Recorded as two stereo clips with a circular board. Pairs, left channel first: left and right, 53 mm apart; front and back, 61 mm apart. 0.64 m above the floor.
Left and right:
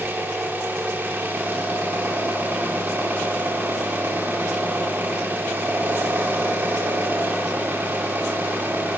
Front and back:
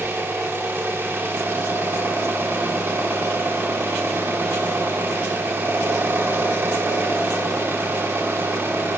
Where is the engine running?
135° right, 1.2 m.